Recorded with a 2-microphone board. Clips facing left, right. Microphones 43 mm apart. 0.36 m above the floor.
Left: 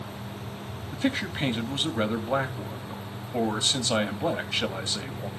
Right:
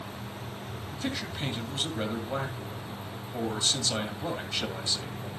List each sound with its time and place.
0.9 s a man speaking: 35° left (ahead or behind), 2 m